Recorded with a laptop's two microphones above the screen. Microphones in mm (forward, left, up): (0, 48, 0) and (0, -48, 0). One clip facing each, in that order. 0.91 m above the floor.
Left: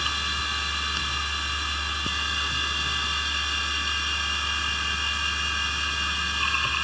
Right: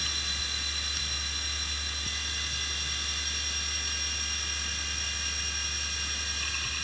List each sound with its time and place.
0.0 s a machine running: 65° left (ahead or behind)